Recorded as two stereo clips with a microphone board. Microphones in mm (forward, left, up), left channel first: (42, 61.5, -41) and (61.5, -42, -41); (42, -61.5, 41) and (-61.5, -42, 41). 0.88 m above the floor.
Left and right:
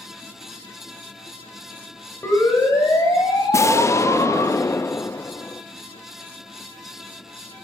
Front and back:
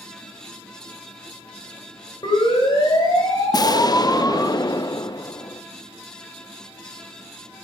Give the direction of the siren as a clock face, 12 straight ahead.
11 o'clock.